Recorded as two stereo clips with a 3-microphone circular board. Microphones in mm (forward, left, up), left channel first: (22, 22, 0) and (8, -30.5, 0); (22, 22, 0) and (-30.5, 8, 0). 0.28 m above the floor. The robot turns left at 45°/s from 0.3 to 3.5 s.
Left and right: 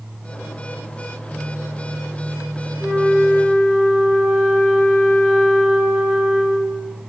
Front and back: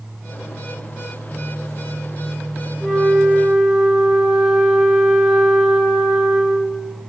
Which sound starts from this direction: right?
A flute, at 2.8 s.